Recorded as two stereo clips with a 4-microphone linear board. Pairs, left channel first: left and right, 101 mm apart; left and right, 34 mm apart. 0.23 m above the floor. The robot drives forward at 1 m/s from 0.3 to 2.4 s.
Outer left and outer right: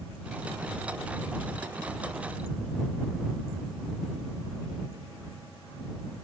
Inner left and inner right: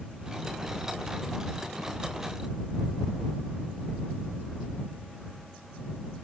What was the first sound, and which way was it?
Only background noise.